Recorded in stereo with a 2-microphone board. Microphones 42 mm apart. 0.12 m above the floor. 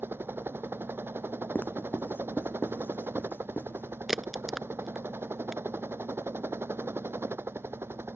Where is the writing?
55° left (ahead or behind).